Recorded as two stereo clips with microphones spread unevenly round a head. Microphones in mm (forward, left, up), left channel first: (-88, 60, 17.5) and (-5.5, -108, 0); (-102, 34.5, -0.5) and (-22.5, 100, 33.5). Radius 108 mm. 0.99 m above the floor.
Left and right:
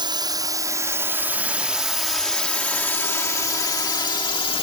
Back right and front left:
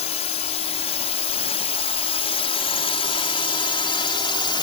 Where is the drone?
130° right; by 4.6 s straight behind.